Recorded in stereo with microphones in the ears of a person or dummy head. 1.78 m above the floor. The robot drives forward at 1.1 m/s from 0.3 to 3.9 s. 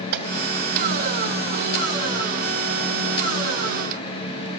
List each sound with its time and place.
0.1 s a gunshot: 55° right (ahead or behind), 3 m